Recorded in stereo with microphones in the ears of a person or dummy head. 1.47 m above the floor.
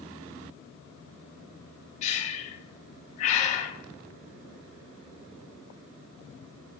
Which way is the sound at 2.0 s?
35° left (ahead or behind).